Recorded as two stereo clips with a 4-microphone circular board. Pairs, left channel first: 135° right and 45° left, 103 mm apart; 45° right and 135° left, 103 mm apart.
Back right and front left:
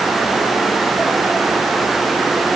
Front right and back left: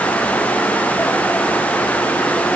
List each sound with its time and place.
Only background noise.